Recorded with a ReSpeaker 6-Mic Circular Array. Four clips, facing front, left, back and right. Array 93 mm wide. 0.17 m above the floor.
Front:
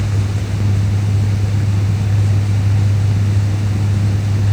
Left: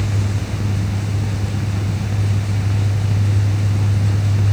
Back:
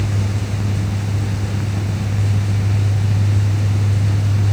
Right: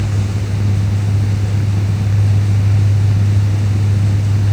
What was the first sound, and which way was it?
Only background noise.